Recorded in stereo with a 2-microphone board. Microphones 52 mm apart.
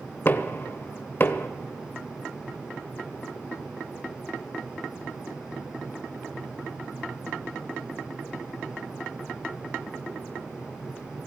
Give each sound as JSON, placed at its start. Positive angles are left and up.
{"t": 0.2, "sound": "knocking", "side_deg": 45, "distance_m": 0.6}